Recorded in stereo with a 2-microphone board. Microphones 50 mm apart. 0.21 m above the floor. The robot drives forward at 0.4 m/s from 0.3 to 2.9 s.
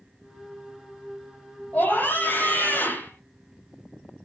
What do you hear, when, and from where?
1.7 s a scream: 45° left (ahead or behind), 6.5 m; by 3.1 s 50° left (ahead or behind), 6.5 m